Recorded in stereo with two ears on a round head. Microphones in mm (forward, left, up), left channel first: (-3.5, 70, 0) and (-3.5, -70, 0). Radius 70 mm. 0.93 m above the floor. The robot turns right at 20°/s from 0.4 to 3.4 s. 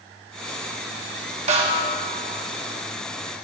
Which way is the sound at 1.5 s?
45° right (ahead or behind).